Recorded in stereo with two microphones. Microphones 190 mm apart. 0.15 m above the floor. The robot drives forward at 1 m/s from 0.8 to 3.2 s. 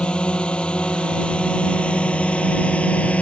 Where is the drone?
5° left (ahead or behind).